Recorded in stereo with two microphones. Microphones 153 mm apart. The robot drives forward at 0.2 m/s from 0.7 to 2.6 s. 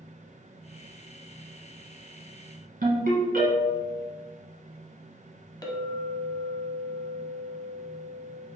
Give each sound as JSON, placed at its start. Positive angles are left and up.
{"t": 2.8, "sound": "a ringtone", "side_deg": -70, "distance_m": 1.5}
{"t": 5.6, "sound": "a clink", "side_deg": 25, "distance_m": 0.6}